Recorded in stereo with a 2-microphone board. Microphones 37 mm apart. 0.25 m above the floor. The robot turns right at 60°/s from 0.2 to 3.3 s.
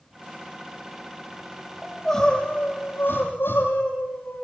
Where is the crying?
5° left, 6.5 m; by 4.5 s 95° left, 6.5 m.